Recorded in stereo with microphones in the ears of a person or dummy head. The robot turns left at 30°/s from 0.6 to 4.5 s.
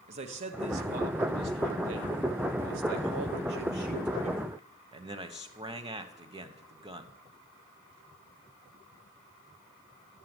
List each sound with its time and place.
0.1 s a man speaking: 40° right, 1.2 m; by 7.1 s 160° right, 1.2 m